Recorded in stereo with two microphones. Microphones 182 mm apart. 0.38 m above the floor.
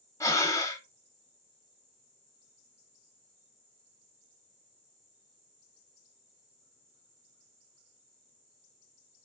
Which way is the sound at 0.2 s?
15° left (ahead or behind).